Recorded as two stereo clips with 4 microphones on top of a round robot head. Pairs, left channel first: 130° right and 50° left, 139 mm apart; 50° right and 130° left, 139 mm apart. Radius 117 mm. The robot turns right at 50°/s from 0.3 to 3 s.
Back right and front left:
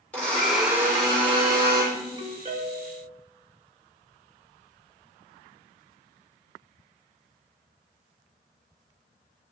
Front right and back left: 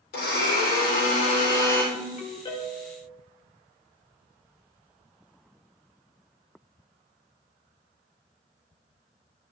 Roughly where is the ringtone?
Ahead.